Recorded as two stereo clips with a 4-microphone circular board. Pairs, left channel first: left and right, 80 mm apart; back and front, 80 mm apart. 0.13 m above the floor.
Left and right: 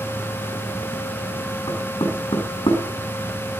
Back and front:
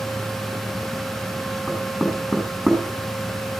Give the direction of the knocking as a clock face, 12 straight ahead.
9 o'clock.